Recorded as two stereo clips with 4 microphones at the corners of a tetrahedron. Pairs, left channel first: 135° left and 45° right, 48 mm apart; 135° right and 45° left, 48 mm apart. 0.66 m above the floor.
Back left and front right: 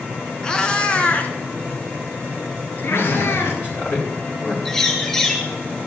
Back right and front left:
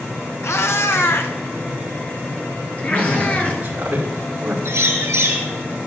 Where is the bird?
60° left, 4 m.